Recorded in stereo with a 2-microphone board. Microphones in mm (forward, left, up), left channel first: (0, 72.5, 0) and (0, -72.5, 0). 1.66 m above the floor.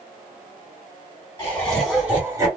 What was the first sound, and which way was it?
Laughter, 25° left (ahead or behind).